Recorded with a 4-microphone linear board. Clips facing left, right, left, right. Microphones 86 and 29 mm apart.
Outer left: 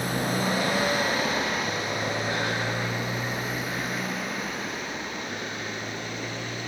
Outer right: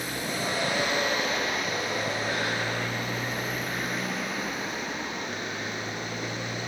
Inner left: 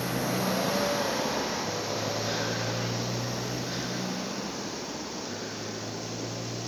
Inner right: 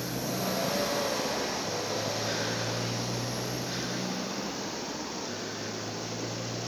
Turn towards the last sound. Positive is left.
turn(degrees=-15)  # may be behind; listen again after turning